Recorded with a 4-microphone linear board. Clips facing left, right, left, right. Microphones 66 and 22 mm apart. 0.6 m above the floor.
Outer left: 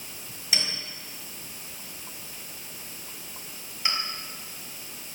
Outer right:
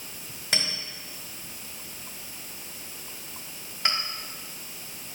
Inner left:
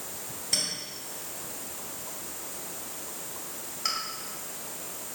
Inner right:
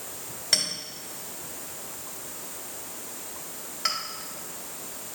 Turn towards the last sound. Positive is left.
turn(degrees=-60)  # may be behind; listen again after turning